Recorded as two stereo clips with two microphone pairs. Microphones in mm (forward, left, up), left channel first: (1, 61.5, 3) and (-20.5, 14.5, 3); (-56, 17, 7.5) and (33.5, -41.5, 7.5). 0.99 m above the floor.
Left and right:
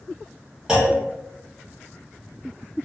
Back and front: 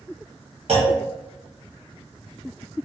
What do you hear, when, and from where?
0.7 s a clunk: 40° right, 1.0 m